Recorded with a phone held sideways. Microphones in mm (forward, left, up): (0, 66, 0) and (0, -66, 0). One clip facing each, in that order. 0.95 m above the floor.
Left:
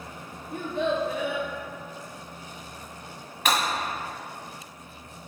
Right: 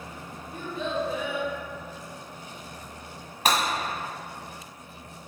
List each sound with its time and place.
0.5 s a child speaking: 60° left (ahead or behind), 0.9 m
3.5 s breaking glass: 40° right (ahead or behind), 1.6 m